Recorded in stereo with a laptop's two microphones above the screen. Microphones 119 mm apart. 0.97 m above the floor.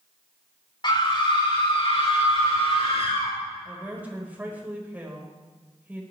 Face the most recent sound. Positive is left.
turn(degrees=-15)  # may be behind; listen again after turning